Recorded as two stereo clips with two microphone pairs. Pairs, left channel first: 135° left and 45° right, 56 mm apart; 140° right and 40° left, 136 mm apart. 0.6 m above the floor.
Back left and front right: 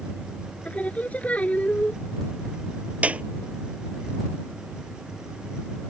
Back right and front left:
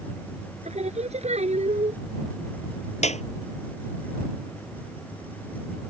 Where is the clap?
105° right.